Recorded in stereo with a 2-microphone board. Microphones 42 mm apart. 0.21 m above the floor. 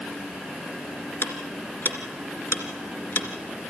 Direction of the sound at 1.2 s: 65° left (ahead or behind).